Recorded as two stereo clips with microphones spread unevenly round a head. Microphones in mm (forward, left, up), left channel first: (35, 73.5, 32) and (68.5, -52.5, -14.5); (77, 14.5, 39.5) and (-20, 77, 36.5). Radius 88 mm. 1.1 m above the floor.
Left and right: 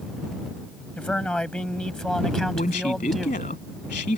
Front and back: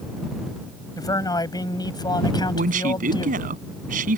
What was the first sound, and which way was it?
A man speaking, 25° left.